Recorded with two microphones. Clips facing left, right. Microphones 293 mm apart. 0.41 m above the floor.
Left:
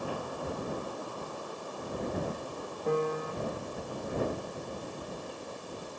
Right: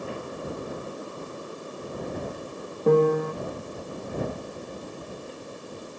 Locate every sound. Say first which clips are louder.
2.9 s a piano: right 11 dB; 60° right (ahead or behind)